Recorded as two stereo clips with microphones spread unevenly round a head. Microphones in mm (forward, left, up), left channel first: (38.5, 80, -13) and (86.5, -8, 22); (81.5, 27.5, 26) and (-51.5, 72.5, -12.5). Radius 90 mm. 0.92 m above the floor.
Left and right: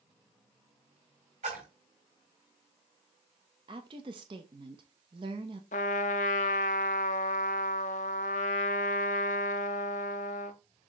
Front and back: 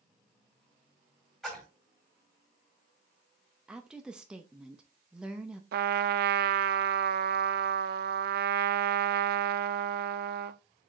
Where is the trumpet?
150° left, 0.5 m.